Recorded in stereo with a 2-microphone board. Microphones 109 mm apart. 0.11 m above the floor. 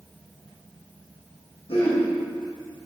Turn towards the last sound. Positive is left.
turn(degrees=65)  # may be behind; listen again after turning